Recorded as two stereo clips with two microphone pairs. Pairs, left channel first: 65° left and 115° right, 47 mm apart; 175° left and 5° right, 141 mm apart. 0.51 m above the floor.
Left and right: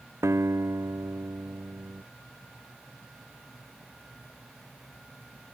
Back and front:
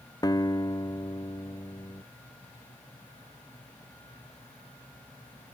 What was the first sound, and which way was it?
A guitar, 120° right.